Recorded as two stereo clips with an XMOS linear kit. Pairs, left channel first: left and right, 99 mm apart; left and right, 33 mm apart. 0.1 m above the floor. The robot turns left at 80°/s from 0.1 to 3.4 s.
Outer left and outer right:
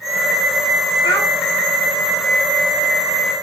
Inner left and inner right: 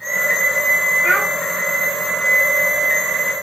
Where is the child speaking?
40° left (ahead or behind), 5 m; by 1.3 s 20° left (ahead or behind), 5 m.